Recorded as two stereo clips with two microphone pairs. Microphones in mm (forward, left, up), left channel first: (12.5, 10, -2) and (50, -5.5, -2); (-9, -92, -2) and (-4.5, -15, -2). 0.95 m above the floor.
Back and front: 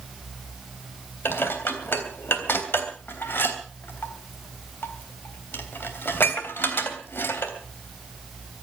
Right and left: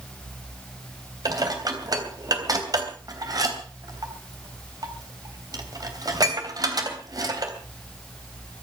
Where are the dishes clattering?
125° left, 3 m.